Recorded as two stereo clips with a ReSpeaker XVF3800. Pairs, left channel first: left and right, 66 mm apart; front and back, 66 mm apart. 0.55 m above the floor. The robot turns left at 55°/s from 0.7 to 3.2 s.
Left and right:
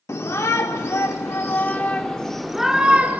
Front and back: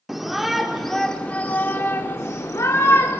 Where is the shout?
95° left, 1.1 m; by 3.2 s 40° right, 1.1 m.